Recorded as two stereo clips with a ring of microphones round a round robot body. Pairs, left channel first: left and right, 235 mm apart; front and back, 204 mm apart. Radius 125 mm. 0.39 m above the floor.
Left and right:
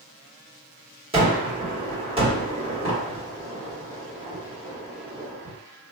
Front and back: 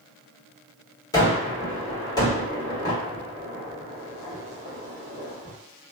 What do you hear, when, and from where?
1.1 s a gunshot: 50° right, 1.4 m